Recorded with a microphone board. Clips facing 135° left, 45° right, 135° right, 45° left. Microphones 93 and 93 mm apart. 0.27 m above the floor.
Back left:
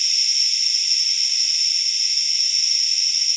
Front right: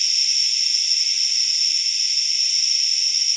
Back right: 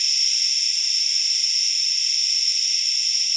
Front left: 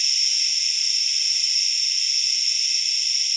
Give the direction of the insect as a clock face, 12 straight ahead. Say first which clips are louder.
Even, front left 1 dB; 7 o'clock.